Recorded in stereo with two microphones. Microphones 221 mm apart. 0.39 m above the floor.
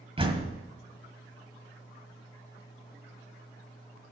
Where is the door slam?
25° right (ahead or behind), 1.6 m.